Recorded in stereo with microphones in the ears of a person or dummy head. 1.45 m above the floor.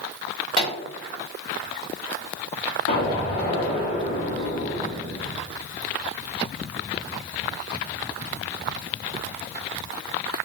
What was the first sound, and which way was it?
A pop, 35° left (ahead or behind).